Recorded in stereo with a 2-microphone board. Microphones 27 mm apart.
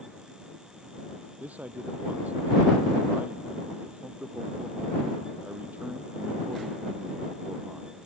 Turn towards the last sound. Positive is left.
turn(degrees=-75)  # may be behind; listen again after turning